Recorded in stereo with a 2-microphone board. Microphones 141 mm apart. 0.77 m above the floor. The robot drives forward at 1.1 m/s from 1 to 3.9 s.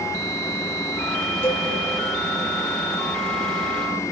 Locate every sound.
1.4 s a cowbell: 15° left (ahead or behind), 2.5 m; by 1.7 s 20° left (ahead or behind), 2.5 m